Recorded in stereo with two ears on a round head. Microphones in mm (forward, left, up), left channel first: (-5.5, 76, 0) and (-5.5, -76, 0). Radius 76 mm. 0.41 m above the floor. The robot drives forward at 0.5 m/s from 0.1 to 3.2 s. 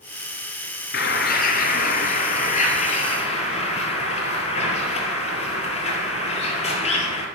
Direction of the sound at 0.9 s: 65° left (ahead or behind).